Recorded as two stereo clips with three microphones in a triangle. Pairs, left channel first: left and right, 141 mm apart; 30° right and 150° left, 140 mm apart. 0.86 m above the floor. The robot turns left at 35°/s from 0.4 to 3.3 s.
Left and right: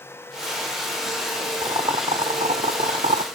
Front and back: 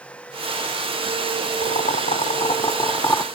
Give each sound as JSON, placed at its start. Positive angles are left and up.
{"t": 1.6, "sound": "boiling", "azimuth_deg": -35, "distance_m": 0.7}